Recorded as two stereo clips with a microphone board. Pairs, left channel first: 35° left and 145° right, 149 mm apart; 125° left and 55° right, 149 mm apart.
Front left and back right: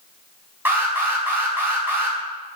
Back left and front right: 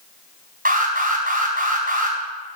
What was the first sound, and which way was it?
An alarm, 70° right.